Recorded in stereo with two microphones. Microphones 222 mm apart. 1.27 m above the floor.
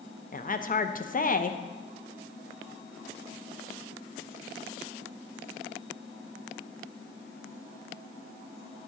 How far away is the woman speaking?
About 0.5 m.